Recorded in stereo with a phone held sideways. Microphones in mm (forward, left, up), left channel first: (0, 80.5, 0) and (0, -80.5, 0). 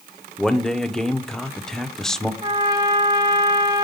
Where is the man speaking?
5° left (ahead or behind), 0.6 m.